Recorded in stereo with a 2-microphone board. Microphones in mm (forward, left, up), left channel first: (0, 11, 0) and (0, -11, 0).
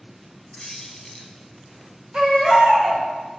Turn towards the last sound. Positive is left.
turn(degrees=-65)  # may be behind; listen again after turning